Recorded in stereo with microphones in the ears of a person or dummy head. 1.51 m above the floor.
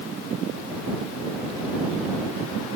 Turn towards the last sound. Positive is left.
No sound to turn to.